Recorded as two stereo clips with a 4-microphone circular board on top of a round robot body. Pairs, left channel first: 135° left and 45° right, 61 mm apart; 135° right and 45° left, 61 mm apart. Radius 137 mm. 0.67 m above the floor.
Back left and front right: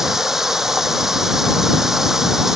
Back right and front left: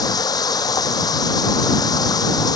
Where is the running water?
130° right.